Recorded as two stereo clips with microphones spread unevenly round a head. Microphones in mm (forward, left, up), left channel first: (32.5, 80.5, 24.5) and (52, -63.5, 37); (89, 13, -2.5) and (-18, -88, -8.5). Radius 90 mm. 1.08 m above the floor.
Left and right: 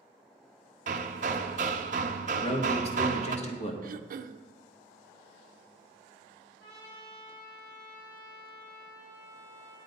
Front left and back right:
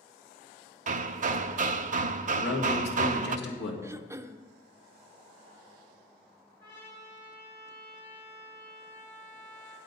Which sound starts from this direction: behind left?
A trumpet, at 6.6 s.